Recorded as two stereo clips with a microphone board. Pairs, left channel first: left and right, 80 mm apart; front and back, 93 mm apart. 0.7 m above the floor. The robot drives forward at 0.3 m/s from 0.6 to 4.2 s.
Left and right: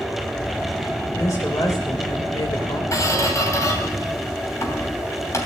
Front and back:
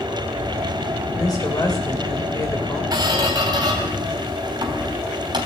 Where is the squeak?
140° left, 3 m; by 5.5 s 145° left, 3 m.